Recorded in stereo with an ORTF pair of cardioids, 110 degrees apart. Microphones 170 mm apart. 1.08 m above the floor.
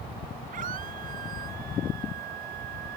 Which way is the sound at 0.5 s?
55° right.